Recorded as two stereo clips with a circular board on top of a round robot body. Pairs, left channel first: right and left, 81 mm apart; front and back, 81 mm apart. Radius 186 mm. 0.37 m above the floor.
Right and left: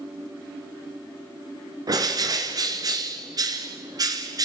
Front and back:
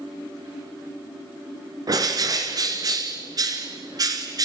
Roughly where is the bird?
Behind left.